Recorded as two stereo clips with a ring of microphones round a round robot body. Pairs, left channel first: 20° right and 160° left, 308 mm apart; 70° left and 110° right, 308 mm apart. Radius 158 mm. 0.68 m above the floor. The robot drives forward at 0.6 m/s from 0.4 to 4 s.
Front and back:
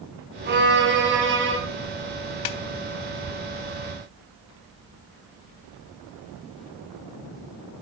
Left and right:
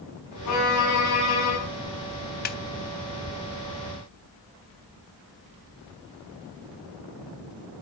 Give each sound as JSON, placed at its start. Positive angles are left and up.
{"t": 0.5, "sound": "a violin", "azimuth_deg": 100, "distance_m": 6.5}
{"t": 2.5, "sound": "a snare drum", "azimuth_deg": 5, "distance_m": 1.0}